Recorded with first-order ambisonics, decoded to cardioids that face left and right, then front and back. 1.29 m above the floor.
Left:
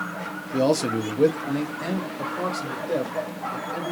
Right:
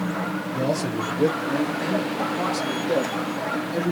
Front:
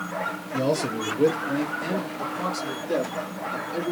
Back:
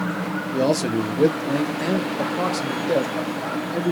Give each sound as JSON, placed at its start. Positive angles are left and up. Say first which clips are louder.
{"t": 0.5, "sound": "a man speaking", "louder": "left 5 dB, back 4 dB", "azimuth_deg": 130, "distance_m": 0.9}